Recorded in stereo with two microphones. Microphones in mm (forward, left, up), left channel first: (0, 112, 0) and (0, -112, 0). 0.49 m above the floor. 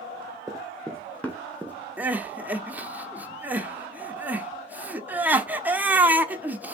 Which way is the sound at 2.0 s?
5° right (ahead or behind).